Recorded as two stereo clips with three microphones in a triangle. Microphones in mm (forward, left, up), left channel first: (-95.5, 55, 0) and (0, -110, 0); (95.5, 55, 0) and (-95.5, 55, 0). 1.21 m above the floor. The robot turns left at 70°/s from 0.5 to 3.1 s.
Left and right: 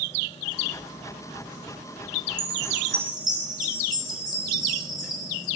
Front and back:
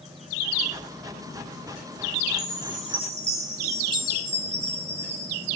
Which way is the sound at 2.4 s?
75° right.